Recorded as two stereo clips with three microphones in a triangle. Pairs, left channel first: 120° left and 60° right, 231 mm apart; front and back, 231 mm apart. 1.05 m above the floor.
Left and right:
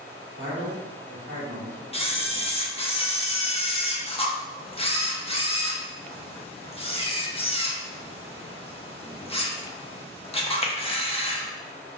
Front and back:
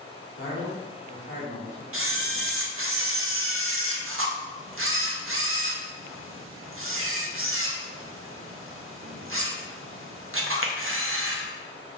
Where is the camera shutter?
Straight behind, 0.7 m.